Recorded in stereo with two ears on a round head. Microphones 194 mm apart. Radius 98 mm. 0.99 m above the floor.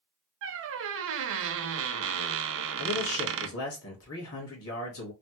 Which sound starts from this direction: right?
A squeak, at 0.4 s.